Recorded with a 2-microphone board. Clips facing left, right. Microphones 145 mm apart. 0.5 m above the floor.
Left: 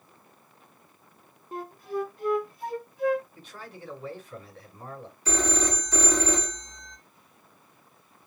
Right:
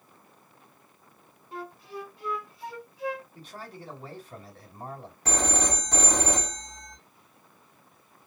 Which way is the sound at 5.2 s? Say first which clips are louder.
Left 1 dB; 70° right (ahead or behind).